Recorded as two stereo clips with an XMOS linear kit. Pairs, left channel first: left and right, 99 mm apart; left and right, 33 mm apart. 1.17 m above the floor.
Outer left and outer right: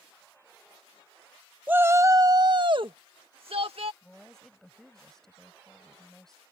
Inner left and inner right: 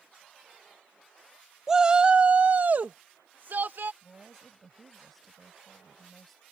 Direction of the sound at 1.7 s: 15° right (ahead or behind).